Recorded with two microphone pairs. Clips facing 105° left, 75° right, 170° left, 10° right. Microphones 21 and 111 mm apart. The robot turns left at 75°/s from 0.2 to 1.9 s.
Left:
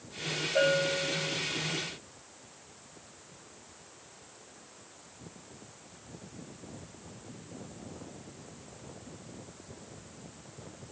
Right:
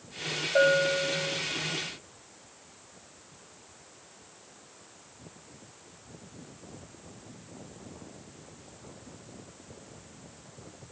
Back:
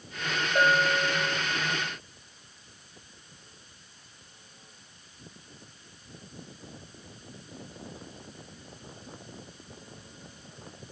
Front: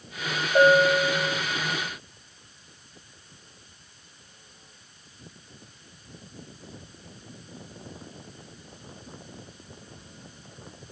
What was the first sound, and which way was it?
A bell, 50° right.